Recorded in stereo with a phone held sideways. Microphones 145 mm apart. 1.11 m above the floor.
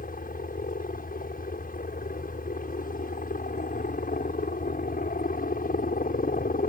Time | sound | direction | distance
0.0 | a helicopter | 70° left (ahead or behind) | ?